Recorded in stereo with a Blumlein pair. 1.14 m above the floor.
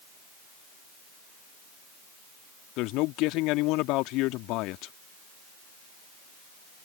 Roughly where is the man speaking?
Ahead left.